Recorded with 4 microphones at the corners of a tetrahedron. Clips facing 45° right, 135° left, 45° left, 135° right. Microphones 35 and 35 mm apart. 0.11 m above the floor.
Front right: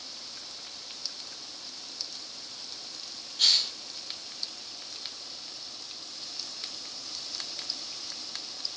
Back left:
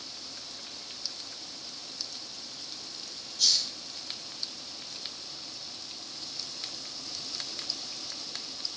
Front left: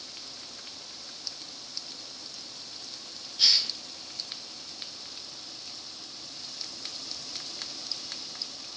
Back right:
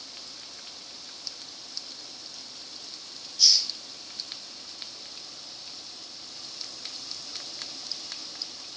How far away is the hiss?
About 0.7 m.